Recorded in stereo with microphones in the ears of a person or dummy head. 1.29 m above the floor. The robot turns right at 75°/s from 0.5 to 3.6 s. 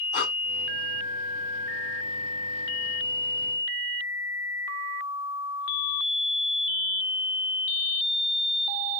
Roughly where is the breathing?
Left.